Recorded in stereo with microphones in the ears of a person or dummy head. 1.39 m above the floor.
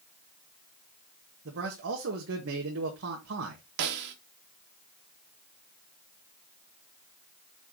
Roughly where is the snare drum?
Right.